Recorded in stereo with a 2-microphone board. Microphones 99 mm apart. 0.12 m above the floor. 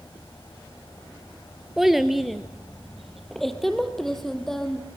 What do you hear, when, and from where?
1.8 s a child speaking: 5° right (ahead or behind), 1.4 m; by 4.8 s 5° left (ahead or behind), 3.5 m